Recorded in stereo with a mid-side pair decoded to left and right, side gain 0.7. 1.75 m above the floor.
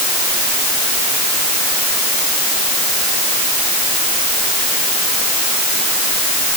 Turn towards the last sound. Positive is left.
No sound to turn to.